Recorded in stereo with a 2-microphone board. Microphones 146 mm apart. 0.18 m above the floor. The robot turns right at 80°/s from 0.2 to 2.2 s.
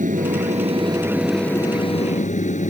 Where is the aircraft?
90° right; by 2.7 s 70° left.